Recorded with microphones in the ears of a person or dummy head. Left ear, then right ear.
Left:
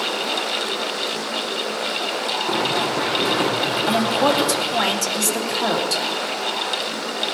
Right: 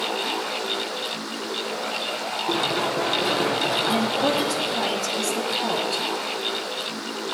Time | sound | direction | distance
2.5 | running footsteps | centre (ahead or behind) | 2.5 m
3.9 | a woman speaking | 60° left (ahead or behind) | 2 m